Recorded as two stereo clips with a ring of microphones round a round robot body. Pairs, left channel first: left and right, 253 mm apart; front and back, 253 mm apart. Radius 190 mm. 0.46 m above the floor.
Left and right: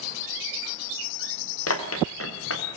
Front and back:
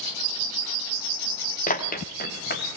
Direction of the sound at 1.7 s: 60° left.